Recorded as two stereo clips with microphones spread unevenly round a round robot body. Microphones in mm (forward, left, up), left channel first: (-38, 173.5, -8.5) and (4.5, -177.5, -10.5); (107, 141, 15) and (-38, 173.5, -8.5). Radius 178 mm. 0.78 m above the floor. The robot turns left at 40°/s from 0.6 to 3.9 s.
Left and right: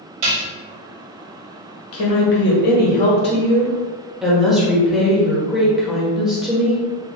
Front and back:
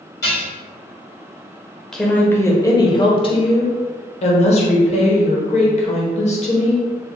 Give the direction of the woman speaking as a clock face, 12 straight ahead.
9 o'clock.